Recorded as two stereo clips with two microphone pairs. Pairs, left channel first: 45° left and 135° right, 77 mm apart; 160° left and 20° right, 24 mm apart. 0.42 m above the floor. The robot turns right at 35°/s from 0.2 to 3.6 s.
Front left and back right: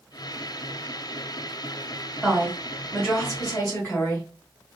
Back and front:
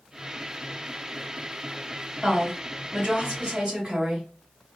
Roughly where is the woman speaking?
Ahead right.